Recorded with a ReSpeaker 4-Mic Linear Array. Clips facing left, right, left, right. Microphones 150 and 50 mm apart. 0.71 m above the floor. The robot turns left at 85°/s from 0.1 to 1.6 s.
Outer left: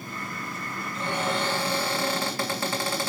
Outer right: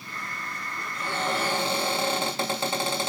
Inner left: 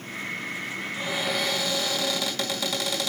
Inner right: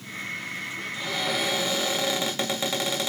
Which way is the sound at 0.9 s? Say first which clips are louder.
Outer left 1 dB, even; 30° left.